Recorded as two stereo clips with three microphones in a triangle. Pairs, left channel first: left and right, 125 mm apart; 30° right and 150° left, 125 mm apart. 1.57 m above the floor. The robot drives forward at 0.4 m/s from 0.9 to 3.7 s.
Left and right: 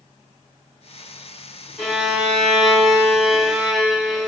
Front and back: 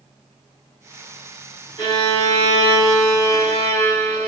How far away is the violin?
About 1.7 m.